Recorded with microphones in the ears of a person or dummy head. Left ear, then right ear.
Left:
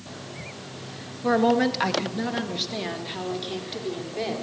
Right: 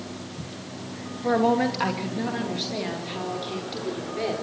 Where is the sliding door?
No sliding door in this recording.